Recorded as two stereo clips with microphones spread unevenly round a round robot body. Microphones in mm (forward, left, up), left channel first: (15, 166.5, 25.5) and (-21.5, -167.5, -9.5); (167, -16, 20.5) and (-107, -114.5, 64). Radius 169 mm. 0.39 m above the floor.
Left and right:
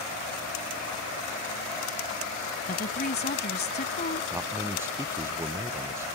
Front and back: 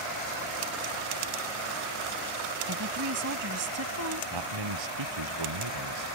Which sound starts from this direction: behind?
A man speaking, at 4.3 s.